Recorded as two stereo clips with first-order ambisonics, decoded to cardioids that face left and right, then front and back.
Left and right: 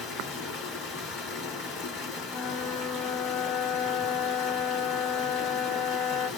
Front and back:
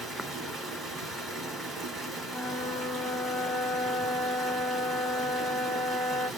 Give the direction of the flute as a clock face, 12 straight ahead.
9 o'clock.